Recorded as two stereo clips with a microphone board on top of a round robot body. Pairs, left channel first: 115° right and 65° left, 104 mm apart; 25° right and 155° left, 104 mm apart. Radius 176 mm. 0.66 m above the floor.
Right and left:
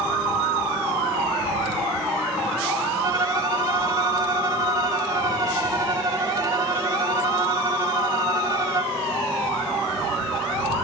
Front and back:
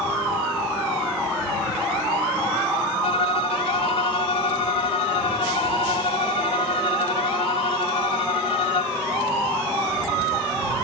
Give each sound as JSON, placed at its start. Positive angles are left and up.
{"t": 3.0, "sound": "a violin", "azimuth_deg": 10}